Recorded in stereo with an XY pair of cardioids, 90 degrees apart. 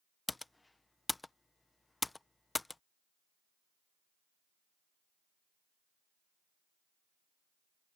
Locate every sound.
0.3 s typing on a keyboard: 15° left